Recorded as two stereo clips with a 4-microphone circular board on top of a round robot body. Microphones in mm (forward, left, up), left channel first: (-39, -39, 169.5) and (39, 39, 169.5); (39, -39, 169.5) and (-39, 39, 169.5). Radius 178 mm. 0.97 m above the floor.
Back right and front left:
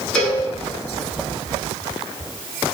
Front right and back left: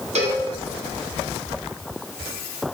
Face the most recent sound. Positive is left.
turn(degrees=145)